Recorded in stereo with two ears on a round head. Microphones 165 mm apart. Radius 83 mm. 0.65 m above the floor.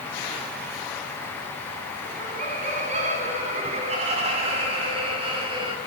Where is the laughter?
40° right (ahead or behind), 6 m; by 5.8 s 25° right (ahead or behind), 4 m.